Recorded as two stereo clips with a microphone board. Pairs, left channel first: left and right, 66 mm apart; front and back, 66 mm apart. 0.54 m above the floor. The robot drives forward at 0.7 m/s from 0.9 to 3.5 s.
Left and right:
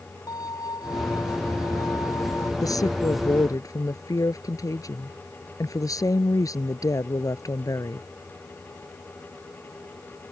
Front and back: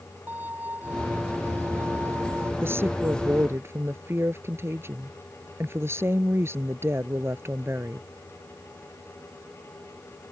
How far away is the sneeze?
No sneeze in this recording.